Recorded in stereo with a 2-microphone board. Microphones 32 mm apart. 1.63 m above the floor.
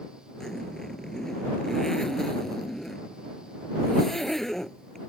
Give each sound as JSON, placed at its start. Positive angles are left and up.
{"t": 0.4, "sound": "a zipper", "side_deg": 10}